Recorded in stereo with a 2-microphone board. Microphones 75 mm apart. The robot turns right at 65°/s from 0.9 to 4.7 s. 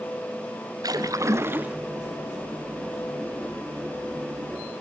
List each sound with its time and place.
0.8 s a splash: 75° right, 2 m; by 1.8 s 20° right, 2 m